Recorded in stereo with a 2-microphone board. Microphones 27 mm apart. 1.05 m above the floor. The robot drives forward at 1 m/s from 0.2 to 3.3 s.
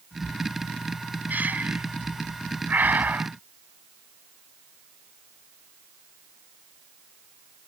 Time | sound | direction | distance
1.3 | breathing | 70° right (ahead or behind) | ?